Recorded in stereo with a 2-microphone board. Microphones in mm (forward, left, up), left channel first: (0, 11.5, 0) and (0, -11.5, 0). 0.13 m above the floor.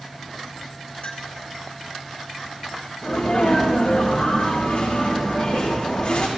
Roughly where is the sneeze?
Left.